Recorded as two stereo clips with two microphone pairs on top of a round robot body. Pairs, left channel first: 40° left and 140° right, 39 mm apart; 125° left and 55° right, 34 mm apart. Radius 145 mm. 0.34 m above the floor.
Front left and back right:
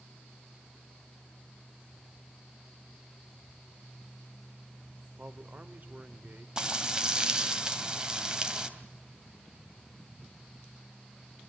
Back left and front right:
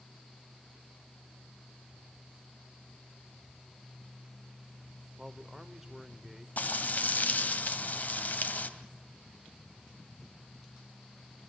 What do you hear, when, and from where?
5.2 s a man speaking: 135° right, 2 m
6.6 s frying: 155° left, 2.5 m